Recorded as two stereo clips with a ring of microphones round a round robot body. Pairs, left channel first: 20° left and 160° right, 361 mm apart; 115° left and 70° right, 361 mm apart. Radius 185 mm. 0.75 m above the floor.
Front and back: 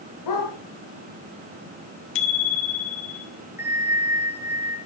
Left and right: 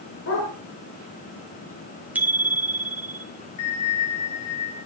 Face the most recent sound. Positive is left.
turn(degrees=120)